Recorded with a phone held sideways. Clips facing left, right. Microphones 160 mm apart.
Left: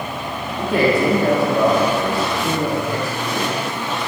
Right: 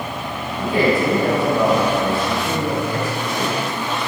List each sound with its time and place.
0.6 s a man speaking: 70° left (ahead or behind), 3 m